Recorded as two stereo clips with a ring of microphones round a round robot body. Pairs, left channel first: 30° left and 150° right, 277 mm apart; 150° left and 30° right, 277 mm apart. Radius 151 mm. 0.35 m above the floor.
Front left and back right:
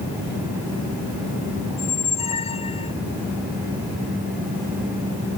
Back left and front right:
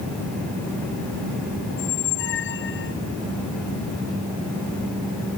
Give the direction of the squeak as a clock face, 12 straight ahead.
9 o'clock.